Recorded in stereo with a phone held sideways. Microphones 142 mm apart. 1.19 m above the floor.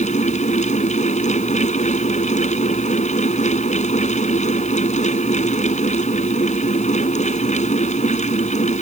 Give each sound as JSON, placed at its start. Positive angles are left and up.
{"t": 0.0, "sound": "a fan", "side_deg": 55}